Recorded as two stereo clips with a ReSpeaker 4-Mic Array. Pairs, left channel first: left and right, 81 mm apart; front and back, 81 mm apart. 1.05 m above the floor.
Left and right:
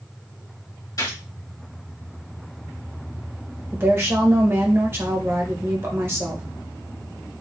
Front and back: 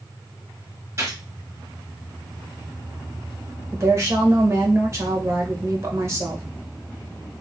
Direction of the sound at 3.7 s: 140° right.